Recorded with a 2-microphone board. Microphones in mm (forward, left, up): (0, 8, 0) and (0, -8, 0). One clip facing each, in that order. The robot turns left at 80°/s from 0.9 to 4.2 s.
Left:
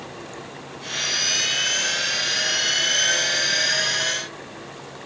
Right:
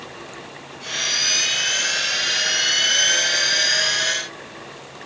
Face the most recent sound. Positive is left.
No sound to turn to.